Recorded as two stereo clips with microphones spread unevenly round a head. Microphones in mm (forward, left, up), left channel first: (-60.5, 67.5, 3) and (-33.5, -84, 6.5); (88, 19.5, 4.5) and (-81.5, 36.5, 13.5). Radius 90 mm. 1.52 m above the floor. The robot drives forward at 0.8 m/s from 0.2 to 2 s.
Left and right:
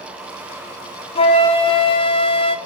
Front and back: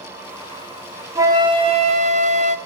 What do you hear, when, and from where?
1.1 s a flute: 115° left, 1.2 m; by 2.6 s 145° left, 1.6 m